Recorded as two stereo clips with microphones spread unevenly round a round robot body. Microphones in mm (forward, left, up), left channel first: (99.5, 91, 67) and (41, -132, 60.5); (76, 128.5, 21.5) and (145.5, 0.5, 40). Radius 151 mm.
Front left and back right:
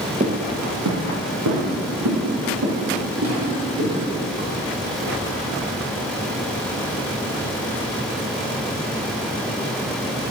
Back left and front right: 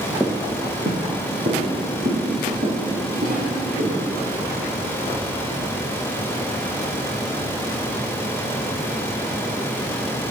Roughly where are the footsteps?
Behind right.